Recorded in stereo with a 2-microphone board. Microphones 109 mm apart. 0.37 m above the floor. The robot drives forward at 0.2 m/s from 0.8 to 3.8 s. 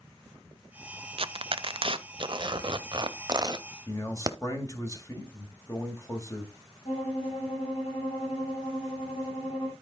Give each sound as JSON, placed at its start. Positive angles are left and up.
{"t": 1.2, "sound": "tearing paper", "side_deg": -60, "distance_m": 0.6}
{"t": 3.9, "sound": "a man speaking", "side_deg": 30, "distance_m": 1.9}
{"t": 6.8, "sound": "a violin", "side_deg": 75, "distance_m": 6.0}